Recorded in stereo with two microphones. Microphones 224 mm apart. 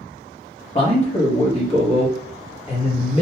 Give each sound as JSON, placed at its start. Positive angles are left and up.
{"t": 0.8, "sound": "a man speaking", "side_deg": 25, "distance_m": 1.1}